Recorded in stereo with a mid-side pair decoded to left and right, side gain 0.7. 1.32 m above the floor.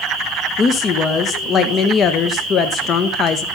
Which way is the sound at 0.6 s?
35° left.